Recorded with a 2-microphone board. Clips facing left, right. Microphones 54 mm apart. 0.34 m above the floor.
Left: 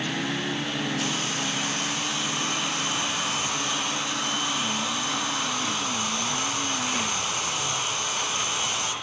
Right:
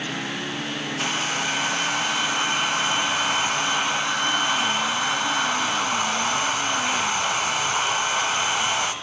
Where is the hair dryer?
60° right (ahead or behind), 1.0 m.